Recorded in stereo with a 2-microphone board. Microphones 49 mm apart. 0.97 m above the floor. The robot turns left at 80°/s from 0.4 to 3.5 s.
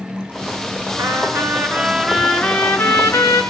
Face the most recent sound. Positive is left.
turn(degrees=70)